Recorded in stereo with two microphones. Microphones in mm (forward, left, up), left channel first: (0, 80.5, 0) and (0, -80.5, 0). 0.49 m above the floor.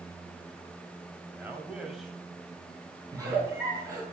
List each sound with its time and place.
1.3 s a man speaking: 15° right (ahead or behind), 2.5 m; by 3.0 s 10° left (ahead or behind), 3.5 m
3.1 s a giggle: 20° right (ahead or behind), 5.5 m